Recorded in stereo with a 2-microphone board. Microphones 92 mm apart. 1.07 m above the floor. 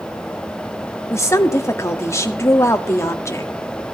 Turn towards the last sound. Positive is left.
turn(degrees=30)  # may be behind; listen again after turning